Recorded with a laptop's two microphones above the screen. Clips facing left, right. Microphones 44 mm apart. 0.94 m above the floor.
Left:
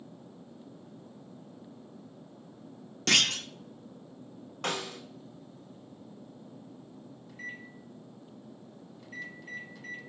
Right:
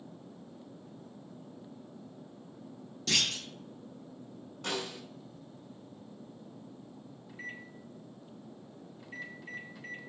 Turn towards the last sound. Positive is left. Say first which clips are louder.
# left 1 dB
turn(degrees=-10)  # may be behind; listen again after turning